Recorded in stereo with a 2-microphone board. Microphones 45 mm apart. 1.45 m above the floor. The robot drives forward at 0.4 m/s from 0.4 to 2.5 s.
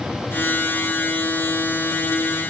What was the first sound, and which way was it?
Only background noise.